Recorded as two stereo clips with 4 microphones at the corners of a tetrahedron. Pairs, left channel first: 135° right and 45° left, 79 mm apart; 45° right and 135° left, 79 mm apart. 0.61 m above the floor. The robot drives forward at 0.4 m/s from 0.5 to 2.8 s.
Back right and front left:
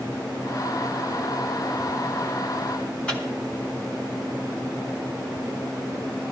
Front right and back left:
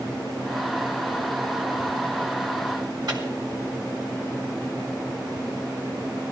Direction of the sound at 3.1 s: 150° left.